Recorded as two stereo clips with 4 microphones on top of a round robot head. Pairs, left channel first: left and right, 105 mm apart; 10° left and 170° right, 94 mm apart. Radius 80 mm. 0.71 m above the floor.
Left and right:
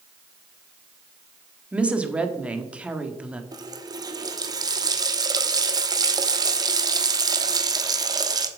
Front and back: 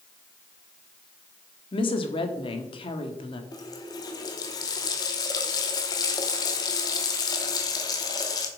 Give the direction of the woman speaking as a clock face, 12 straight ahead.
12 o'clock.